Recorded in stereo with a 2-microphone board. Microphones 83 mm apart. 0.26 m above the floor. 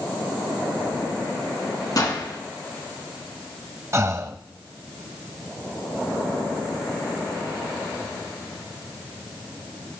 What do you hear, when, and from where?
2.0 s a gunshot: 50° left (ahead or behind), 1.4 m
3.9 s breathing: 35° right (ahead or behind), 0.7 m